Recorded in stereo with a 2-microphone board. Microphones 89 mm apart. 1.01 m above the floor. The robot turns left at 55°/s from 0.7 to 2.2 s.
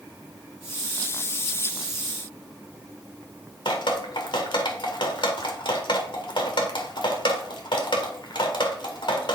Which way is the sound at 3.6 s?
60° left (ahead or behind).